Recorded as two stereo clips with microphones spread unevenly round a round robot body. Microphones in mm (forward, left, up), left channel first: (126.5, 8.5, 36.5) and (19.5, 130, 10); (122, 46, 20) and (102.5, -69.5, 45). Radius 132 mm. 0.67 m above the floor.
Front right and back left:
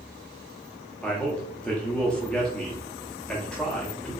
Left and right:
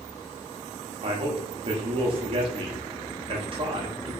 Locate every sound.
1.0 s a man speaking: 140° right, 0.9 m